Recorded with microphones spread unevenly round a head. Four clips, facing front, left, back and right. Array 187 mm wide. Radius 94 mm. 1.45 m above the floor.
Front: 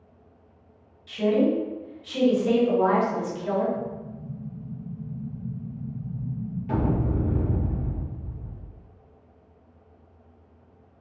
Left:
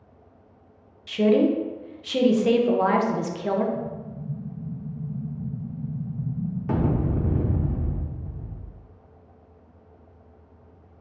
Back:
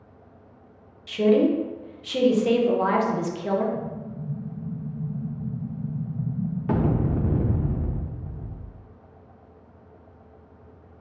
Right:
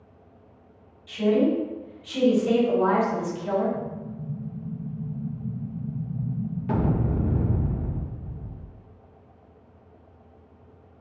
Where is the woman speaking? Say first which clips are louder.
Left 2 dB, back 3 dB; 125° left, 0.5 m.